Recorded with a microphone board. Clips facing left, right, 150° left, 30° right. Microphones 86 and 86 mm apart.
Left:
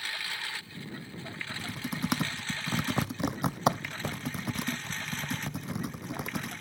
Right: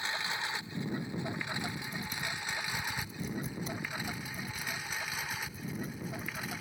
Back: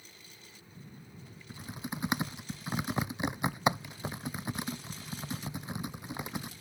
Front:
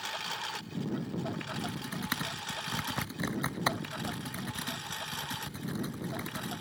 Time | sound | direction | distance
0.0 | a lawn mower | 20° right | ?
1.5 | typing on a keyboard | 75° left | ?